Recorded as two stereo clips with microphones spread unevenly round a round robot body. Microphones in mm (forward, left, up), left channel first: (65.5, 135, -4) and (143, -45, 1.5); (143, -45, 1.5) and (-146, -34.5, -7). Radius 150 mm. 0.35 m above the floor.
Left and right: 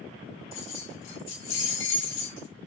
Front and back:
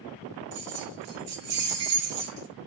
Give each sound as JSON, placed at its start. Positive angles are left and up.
{"t": 0.5, "sound": "keys jangling", "azimuth_deg": 135, "distance_m": 4.0}